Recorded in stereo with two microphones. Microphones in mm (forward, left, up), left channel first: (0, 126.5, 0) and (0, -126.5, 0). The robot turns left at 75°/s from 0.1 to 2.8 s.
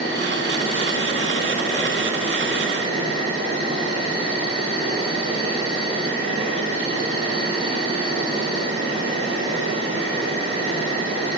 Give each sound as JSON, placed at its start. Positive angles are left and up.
{"t": 0.0, "sound": "an insect", "azimuth_deg": 140, "distance_m": 1.3}